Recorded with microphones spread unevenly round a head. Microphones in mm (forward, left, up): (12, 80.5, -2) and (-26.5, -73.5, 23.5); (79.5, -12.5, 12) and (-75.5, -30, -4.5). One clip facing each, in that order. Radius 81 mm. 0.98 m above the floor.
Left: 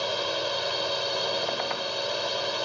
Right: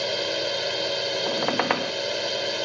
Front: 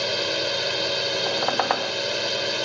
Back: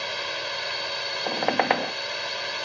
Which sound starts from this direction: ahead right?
A drone, at 0.0 s.